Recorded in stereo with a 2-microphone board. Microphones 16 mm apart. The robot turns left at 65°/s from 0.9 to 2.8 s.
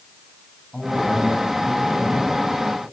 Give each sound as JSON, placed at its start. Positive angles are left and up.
{"t": 0.7, "sound": "a man speaking", "azimuth_deg": 115, "distance_m": 9.0}